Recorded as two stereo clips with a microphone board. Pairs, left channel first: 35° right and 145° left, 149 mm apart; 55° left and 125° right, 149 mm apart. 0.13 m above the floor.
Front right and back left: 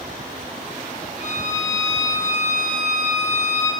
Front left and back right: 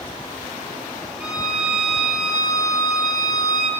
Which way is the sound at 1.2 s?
150° left.